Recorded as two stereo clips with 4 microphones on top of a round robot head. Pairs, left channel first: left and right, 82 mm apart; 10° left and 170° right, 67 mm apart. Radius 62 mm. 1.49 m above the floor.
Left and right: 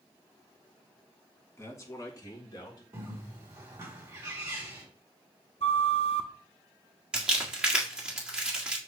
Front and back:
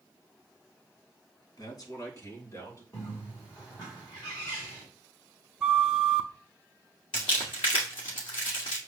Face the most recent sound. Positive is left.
turn(degrees=-10)